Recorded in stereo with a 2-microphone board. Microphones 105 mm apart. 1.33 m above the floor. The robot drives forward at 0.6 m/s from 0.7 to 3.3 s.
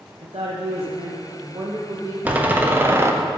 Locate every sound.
0.2 s a woman speaking: 85° right, 1.0 m; by 2.1 s 45° right (ahead or behind), 1.4 m
2.2 s a door slam: 15° right (ahead or behind), 1.2 m; by 3.1 s 25° right (ahead or behind), 0.7 m